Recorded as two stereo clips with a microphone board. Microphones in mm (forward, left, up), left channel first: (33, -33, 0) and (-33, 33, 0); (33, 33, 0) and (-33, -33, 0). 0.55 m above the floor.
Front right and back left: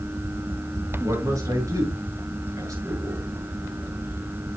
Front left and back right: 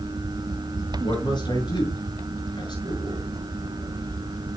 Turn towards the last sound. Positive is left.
turn(degrees=80)